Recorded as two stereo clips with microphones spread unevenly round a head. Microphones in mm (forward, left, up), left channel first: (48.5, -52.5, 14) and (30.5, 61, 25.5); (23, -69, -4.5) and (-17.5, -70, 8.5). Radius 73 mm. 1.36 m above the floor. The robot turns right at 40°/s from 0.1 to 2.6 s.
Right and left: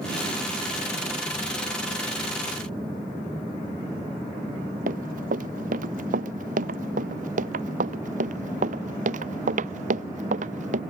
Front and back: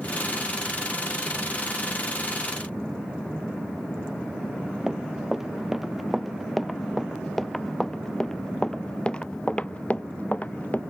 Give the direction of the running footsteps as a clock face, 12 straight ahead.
9 o'clock.